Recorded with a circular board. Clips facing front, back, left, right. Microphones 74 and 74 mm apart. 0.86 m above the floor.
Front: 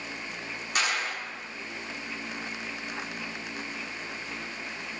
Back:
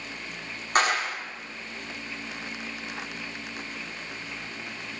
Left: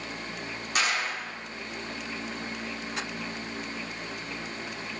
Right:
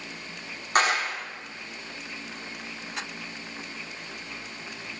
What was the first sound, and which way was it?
A clap, 135° right.